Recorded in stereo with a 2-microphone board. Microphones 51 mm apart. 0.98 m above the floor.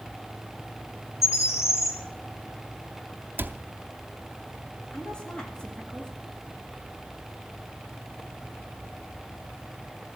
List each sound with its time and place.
1.2 s a bird: 75° left (ahead or behind), 3 m
3.4 s a cupboard door: 45° right (ahead or behind), 0.6 m
4.9 s a woman speaking: 20° left (ahead or behind), 2 m